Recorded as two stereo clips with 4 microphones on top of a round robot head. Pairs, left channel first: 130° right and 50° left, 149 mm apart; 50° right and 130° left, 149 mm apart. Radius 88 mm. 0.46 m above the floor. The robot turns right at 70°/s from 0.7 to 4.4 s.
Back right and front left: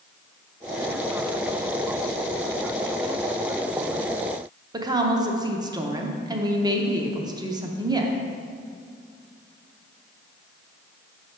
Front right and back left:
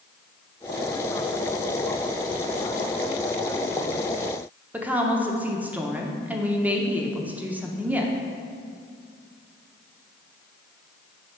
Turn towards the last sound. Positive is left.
turn(degrees=60)